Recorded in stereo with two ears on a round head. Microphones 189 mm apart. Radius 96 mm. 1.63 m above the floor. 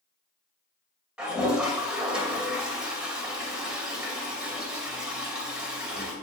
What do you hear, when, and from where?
1.2 s a toilet flushing: 5° right (ahead or behind), 2.5 m